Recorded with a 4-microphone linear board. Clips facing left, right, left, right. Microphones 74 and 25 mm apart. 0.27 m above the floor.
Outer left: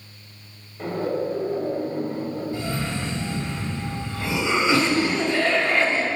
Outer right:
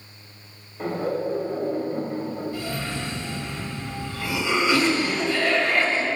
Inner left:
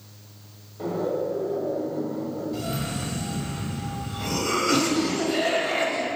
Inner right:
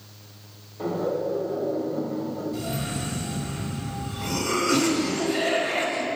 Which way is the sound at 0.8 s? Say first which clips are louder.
Even, even; 5° right (ahead or behind).